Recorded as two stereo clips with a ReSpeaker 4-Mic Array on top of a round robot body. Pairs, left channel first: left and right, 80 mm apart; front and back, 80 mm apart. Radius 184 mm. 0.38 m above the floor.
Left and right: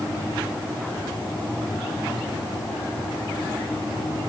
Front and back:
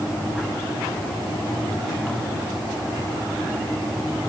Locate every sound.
Only background noise.